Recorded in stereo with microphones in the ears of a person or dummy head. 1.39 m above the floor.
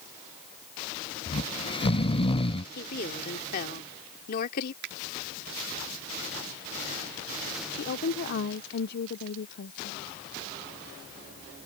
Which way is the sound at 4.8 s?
60° right (ahead or behind).